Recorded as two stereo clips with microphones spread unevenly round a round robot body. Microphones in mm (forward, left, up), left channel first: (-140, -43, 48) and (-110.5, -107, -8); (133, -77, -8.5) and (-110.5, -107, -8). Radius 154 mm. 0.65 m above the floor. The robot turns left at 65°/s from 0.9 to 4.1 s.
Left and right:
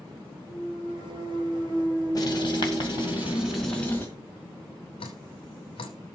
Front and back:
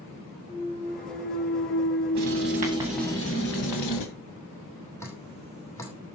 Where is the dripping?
90° left, 2 m.